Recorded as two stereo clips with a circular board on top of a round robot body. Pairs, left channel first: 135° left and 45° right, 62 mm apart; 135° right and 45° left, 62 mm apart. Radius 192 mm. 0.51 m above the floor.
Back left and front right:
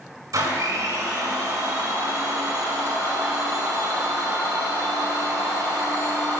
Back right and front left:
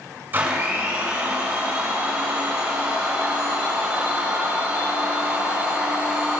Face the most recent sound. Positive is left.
turn(degrees=-15)